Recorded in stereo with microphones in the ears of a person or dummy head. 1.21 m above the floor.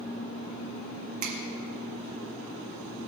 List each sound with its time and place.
1.2 s a finger snap: 40° right (ahead or behind), 1.5 m